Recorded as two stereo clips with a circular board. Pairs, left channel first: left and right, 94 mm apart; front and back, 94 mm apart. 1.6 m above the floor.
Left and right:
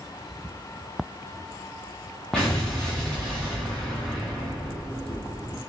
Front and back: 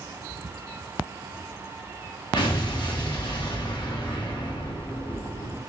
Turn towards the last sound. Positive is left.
turn(degrees=10)